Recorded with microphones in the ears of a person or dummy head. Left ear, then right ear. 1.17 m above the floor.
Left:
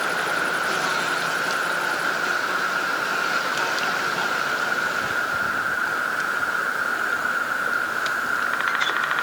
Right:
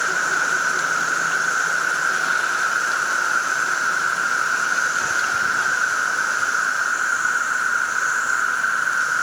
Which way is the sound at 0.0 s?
35° right (ahead or behind).